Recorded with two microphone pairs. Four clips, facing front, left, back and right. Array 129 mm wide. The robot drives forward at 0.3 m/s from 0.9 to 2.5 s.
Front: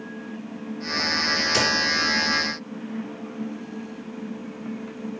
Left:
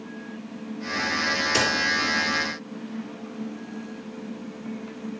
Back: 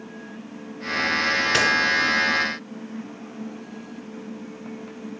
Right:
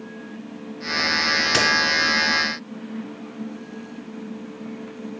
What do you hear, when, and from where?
1.5 s a crack: 115° right, 1.3 m